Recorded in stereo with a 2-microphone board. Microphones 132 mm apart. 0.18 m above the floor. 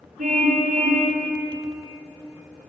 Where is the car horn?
80° right, 7 m.